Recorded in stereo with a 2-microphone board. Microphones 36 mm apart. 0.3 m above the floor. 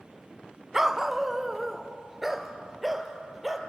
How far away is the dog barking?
About 0.6 m.